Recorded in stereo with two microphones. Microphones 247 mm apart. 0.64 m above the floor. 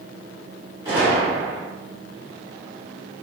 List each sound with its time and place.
0.8 s a gunshot: 15° right (ahead or behind), 1.8 m